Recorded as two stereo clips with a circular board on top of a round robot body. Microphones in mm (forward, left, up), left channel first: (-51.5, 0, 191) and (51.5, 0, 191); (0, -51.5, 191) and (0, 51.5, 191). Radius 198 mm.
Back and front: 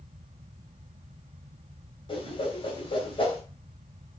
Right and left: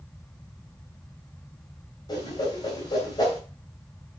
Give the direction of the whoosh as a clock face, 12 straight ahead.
5 o'clock.